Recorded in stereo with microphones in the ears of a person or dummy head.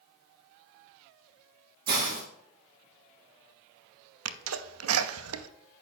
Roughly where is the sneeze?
Right.